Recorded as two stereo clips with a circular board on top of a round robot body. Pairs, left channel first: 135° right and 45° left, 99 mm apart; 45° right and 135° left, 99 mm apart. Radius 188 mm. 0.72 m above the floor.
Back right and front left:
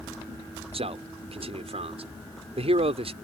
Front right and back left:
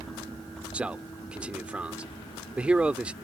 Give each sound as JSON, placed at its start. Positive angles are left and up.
{"t": 0.7, "sound": "a man speaking", "azimuth_deg": 55}